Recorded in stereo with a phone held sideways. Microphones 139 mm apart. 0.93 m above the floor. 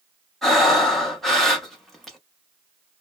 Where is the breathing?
Centre (ahead or behind), 0.8 m.